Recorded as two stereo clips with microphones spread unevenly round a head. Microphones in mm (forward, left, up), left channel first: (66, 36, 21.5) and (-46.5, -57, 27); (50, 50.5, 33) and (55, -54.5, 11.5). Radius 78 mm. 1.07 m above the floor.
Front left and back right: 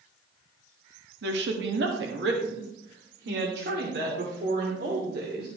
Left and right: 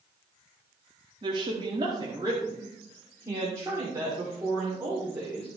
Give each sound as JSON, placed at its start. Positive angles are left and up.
{"t": 1.2, "sound": "a woman speaking", "azimuth_deg": -145, "distance_m": 1.5}